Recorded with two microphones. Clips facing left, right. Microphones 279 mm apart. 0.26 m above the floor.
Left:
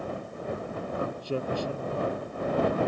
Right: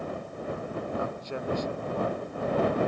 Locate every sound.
1.0 s a man speaking: 40° left (ahead or behind)